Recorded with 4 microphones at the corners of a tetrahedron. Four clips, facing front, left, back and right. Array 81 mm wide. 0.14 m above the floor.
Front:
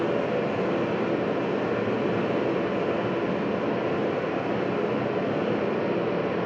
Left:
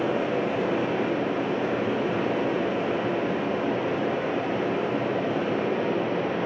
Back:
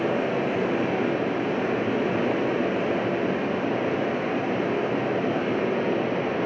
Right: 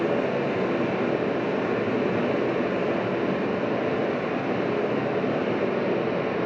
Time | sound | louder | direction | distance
0.0 | running water | right 1 dB, back 1 dB | 150° right | 3 m